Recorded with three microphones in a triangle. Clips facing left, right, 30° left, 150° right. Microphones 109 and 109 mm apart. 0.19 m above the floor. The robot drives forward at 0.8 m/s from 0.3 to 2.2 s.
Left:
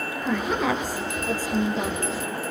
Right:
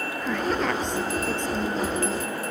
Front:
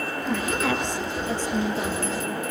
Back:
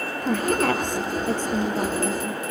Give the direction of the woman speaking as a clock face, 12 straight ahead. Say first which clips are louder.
Left 1 dB, back 5 dB; 6 o'clock.